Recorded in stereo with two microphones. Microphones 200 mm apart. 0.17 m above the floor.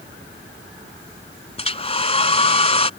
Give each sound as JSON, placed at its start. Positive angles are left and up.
{"t": 1.6, "sound": "a hair dryer", "side_deg": 30}